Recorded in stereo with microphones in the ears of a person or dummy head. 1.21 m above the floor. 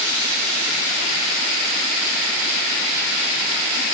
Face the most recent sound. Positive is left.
No sound to turn to.